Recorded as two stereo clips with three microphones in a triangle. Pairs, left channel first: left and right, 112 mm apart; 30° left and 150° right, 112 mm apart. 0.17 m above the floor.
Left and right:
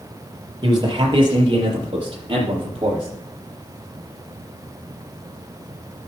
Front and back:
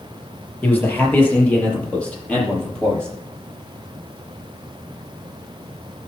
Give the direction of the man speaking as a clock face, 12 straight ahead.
1 o'clock.